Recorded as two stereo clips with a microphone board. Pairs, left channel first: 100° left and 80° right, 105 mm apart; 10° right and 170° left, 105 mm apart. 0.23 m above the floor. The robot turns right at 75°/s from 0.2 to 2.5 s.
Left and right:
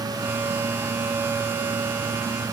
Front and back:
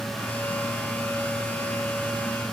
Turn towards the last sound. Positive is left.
No sound to turn to.